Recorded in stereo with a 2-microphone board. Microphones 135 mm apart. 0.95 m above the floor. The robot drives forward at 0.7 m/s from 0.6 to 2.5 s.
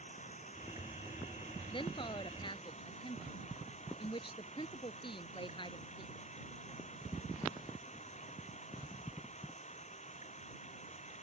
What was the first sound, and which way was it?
Running water, 65° left (ahead or behind).